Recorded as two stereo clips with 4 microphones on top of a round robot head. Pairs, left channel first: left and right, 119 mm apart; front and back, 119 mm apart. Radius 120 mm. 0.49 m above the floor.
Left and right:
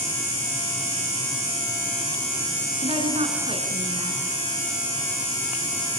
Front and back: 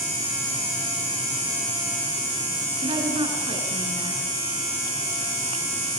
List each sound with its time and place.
2.8 s a woman speaking: 130° right, 7.5 m